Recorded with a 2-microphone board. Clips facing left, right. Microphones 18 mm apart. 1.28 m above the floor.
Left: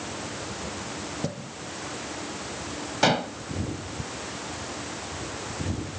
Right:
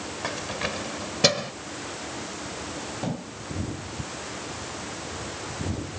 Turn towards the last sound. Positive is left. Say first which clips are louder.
# left 15 dB
turn(degrees=60)  # may be behind; listen again after turning